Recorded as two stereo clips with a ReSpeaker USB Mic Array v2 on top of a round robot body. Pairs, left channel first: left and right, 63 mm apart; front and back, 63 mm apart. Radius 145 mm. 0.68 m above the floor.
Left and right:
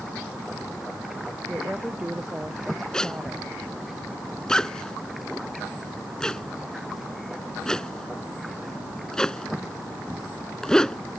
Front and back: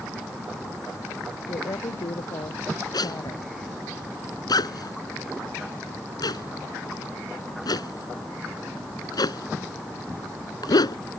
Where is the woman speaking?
15° right.